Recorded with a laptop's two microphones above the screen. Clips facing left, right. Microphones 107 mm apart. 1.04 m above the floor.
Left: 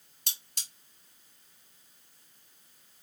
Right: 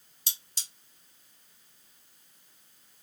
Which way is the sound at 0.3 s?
60° left (ahead or behind).